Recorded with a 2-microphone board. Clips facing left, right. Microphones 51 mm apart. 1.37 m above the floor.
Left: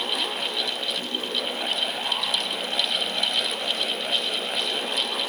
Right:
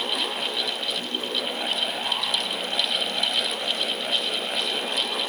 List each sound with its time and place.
Only background noise.